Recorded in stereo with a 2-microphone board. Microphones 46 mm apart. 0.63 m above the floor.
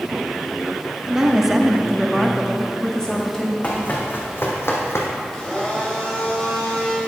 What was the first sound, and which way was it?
A woman speaking, 10° right (ahead or behind).